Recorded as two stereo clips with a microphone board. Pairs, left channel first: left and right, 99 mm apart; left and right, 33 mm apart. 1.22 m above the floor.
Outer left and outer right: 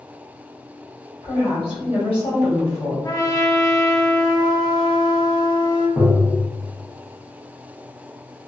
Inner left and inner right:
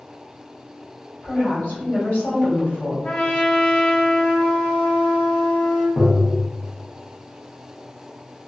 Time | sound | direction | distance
1.2 | a woman speaking | 75° left (ahead or behind) | 1.7 m
3.0 | a trumpet | 40° left (ahead or behind) | 0.8 m
6.0 | tapping | 10° right (ahead or behind) | 0.8 m